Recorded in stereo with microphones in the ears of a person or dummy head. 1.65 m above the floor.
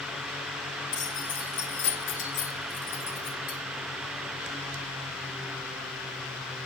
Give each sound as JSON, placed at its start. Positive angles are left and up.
{"t": 0.9, "sound": "keys jangling", "side_deg": 40, "distance_m": 2.5}